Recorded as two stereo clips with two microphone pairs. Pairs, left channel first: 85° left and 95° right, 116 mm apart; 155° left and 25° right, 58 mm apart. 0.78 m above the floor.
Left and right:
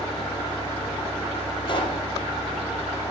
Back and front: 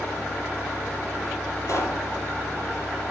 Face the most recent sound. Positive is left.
turn(degrees=130)